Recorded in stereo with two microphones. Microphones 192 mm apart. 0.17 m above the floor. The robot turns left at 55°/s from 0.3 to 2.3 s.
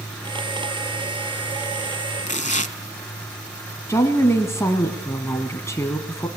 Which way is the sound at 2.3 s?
40° left (ahead or behind).